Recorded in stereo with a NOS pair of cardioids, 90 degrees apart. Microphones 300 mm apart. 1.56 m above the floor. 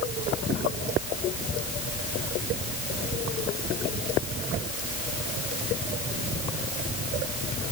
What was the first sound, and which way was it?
Only background noise.